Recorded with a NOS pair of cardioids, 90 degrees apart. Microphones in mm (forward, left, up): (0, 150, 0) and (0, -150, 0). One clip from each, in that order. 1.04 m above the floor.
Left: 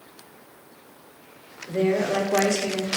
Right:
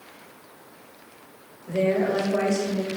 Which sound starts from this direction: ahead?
A woman speaking, at 1.7 s.